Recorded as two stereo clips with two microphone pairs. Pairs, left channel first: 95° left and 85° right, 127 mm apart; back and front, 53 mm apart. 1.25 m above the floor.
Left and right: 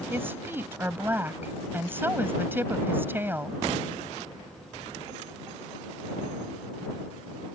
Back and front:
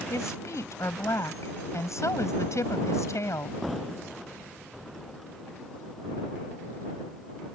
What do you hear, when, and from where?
0.1 s a woman speaking: 160° right